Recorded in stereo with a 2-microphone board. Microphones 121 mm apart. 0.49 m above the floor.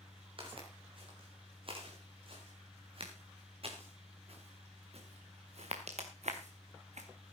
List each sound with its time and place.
0.4 s footsteps: 45° right (ahead or behind), 6 m; by 7.1 s 70° right (ahead or behind), 2.5 m